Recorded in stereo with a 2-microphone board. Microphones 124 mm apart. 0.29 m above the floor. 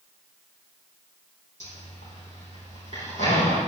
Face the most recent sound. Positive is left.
turn(degrees=65)  # may be behind; listen again after turning